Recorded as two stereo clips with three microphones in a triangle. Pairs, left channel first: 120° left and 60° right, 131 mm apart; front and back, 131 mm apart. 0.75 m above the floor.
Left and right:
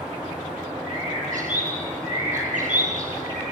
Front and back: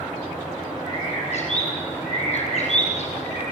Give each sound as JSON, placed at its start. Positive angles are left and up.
{"t": 0.8, "sound": "a bird", "azimuth_deg": -35, "distance_m": 4.5}